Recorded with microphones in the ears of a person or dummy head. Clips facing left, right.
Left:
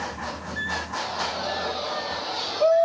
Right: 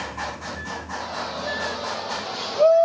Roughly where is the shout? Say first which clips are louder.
Even; centre.